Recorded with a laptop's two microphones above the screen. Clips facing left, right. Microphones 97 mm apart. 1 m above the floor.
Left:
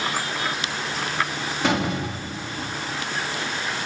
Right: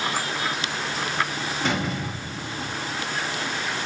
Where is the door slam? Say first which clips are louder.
Left 5 dB; 80° left, 1.5 m.